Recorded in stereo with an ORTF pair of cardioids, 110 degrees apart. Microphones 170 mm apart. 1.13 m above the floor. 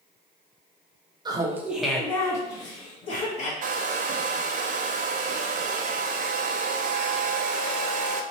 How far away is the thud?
I don't hear a thud.